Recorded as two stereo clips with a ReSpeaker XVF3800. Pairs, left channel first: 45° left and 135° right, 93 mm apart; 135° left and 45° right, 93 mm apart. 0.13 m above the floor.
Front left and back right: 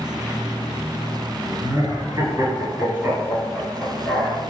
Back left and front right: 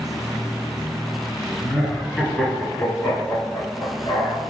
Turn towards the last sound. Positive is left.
turn(degrees=110)